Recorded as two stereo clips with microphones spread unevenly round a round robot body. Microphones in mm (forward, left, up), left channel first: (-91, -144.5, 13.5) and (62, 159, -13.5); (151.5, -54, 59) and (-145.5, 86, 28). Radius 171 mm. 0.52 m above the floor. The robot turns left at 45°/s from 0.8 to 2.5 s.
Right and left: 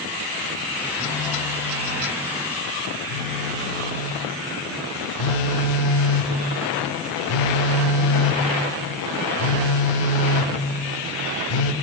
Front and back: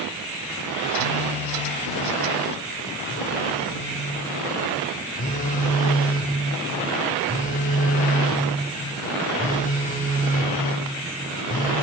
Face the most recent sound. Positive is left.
turn(degrees=-95)